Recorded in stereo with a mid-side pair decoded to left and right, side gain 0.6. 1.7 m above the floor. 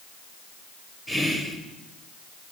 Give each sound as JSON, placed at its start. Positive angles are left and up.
{"t": 1.1, "sound": "whispering", "azimuth_deg": 10, "distance_m": 1.3}